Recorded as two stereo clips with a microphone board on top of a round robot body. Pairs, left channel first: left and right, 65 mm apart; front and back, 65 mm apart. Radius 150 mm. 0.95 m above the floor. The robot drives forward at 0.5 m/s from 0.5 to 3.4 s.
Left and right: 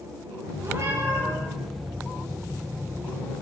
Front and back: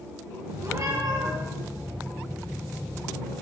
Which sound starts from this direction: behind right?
A cat meowing, at 0.6 s.